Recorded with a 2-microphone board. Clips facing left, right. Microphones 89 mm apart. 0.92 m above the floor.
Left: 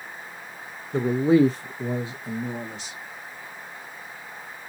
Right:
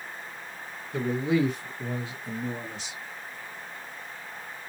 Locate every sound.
0.9 s a man speaking: 30° left (ahead or behind), 0.9 m; by 3.0 s 10° left (ahead or behind), 1.9 m